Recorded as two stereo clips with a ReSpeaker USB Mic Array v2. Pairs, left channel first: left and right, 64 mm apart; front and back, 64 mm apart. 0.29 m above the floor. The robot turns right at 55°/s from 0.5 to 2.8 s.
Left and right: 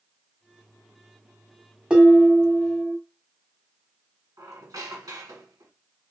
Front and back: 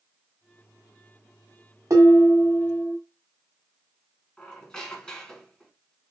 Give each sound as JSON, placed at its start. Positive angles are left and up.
{"t": 1.9, "sound": "dishes clattering", "azimuth_deg": -165, "distance_m": 1.2}
{"t": 4.4, "sound": "a squeak", "azimuth_deg": -80, "distance_m": 1.1}